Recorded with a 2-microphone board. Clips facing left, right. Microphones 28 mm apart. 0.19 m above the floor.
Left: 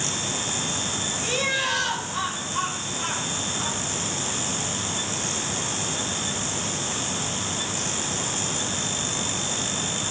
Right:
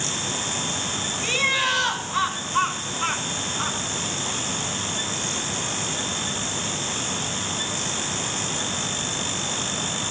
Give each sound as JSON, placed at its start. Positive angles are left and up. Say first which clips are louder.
{"t": 1.2, "sound": "laughter", "louder": "right 4 dB", "side_deg": -35, "distance_m": 1.9}